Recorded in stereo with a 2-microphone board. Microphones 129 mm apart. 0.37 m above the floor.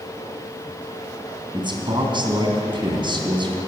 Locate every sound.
1.5 s a man speaking: 40° right (ahead or behind), 2.5 m